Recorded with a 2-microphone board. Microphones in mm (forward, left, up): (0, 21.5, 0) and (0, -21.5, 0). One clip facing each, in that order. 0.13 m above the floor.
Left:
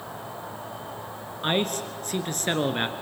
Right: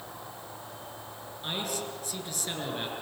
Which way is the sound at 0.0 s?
70° left (ahead or behind).